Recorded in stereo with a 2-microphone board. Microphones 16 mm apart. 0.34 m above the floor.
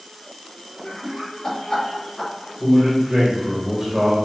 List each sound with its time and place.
0.8 s laughter: 50° left (ahead or behind), 1.5 m; by 2.3 s 30° left (ahead or behind), 1.3 m
2.6 s a man speaking: 30° right (ahead or behind), 1.7 m